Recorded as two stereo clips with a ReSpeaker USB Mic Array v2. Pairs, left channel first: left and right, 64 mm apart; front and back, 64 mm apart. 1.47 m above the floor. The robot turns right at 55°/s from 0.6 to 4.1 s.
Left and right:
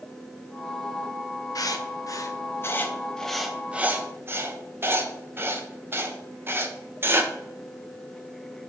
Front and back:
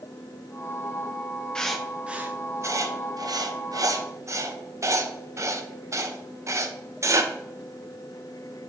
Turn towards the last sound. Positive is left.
turn(degrees=-140)